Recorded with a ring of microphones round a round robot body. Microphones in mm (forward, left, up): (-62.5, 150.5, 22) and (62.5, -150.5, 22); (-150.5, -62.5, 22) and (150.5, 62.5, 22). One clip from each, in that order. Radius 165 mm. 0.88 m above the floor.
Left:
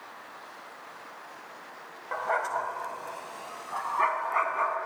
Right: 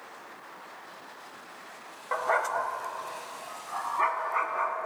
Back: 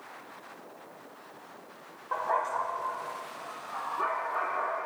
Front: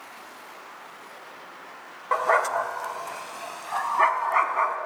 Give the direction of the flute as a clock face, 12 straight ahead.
No flute in this recording.